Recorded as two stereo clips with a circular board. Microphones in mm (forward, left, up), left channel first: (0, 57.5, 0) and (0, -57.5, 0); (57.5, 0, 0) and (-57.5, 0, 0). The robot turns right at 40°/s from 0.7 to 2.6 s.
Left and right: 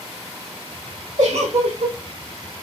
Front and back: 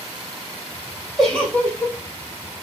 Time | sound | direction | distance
1.2 | a giggle | 85° right | 1.6 m